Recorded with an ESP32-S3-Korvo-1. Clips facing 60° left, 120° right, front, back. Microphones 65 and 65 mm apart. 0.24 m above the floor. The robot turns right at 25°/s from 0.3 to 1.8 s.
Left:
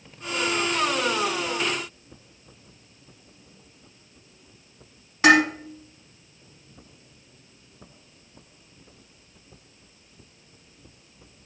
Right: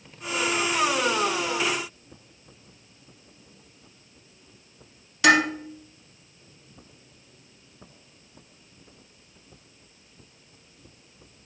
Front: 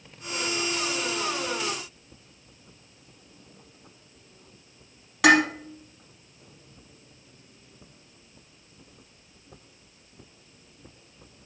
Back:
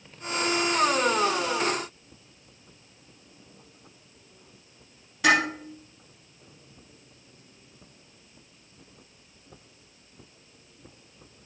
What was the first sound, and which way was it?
Dishes clattering, 5° left.